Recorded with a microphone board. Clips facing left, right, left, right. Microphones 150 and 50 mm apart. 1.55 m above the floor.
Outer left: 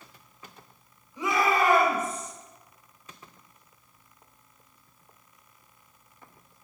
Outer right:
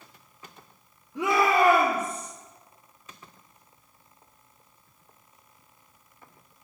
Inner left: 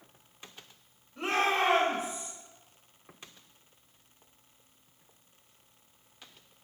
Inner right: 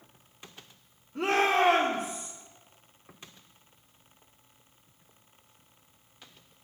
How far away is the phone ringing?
I don't hear a phone ringing.